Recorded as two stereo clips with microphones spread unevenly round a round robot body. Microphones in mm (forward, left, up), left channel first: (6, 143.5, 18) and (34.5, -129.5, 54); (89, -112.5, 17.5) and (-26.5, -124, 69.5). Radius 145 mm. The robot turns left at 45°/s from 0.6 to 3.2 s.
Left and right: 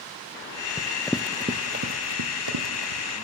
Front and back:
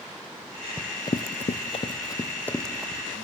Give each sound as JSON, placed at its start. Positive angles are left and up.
{"t": 0.8, "sound": "running footsteps", "azimuth_deg": 180, "distance_m": 0.8}